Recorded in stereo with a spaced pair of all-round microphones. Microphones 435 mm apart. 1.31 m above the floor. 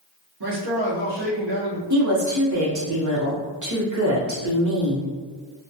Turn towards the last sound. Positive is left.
turn(degrees=-40)  # may be behind; listen again after turning